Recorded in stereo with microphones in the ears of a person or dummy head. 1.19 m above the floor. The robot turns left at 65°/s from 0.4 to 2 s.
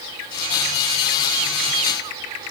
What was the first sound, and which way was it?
Only background noise.